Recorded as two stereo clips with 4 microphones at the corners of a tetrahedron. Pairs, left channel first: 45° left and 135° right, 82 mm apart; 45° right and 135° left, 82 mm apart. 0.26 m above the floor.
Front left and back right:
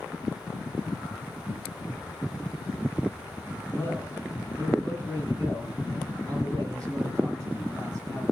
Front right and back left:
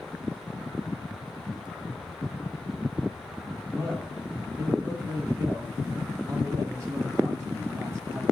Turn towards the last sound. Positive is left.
turn(degrees=180)